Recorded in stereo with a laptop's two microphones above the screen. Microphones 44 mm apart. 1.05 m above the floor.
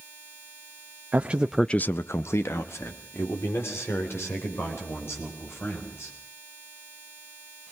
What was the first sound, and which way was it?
A man speaking, 35° right (ahead or behind).